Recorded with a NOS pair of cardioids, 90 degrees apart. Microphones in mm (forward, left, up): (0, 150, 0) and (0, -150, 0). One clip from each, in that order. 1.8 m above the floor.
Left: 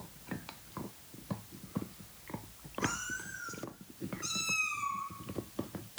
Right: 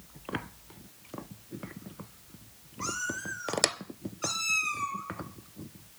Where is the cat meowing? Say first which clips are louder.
Right 3 dB; 40° right, 6.5 m; by 5.0 s 35° right, 8 m.